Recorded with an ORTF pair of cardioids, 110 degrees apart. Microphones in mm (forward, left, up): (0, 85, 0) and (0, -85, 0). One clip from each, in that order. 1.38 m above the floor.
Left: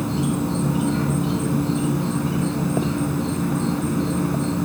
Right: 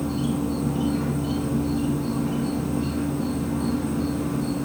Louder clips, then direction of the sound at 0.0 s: Left 2 dB; 65° left.